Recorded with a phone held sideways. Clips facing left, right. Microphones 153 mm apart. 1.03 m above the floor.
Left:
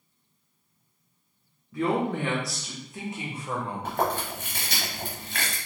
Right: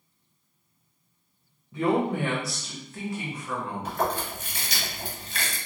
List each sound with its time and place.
1.7 s a woman speaking: 25° right (ahead or behind), 1.1 m; by 4.0 s 45° left (ahead or behind), 1.3 m
3.9 s chewing: 55° left (ahead or behind), 1.1 m